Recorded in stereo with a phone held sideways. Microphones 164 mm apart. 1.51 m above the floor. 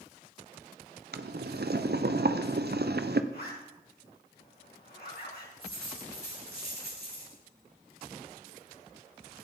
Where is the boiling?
80° right, 0.7 m.